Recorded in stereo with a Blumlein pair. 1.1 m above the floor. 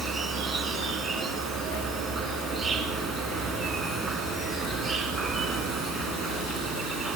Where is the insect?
20° right, 3.5 m.